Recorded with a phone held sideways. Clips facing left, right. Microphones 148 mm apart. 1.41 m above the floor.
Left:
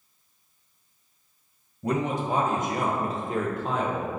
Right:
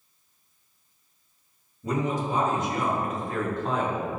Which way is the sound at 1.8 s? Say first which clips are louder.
Left 1 dB; 70° left (ahead or behind).